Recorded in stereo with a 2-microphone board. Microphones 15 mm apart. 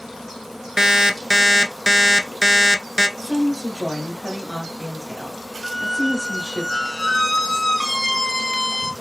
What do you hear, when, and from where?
0.8 s an alarm clock: 30° right (ahead or behind), 0.5 m
3.2 s a woman speaking: 40° right (ahead or behind), 2 m
5.6 s a squeak: 20° left (ahead or behind), 0.7 m